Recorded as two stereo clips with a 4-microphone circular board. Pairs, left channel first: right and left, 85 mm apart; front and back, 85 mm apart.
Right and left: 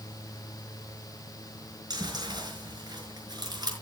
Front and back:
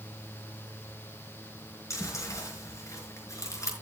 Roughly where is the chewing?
Ahead left.